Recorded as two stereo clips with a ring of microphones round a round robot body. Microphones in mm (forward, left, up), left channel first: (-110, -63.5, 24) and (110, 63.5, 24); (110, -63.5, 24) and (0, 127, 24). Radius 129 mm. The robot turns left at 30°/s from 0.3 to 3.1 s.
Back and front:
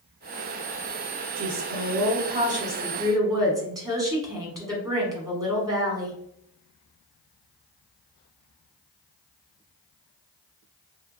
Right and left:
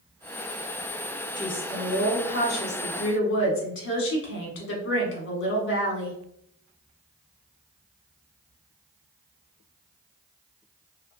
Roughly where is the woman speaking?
Ahead.